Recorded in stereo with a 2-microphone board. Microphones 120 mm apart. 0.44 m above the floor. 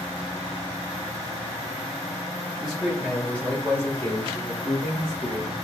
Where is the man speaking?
5° right (ahead or behind), 1.6 m; by 5.5 s 55° left (ahead or behind), 2 m.